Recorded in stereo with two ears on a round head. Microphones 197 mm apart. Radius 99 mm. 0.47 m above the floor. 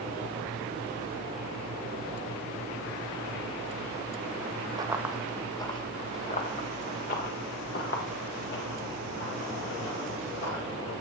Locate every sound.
4.8 s running footsteps: 20° right (ahead or behind), 0.7 m; by 10.9 s 60° left (ahead or behind), 4 m